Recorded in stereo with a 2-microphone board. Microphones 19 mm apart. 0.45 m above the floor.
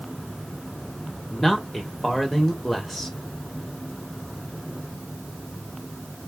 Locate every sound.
1.3 s a man speaking: 5° left (ahead or behind), 0.9 m